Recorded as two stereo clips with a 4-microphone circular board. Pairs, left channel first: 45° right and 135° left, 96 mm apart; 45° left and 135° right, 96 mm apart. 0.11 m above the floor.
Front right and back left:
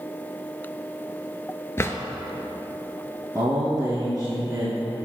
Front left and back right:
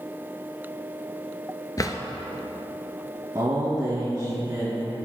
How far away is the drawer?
About 0.7 m.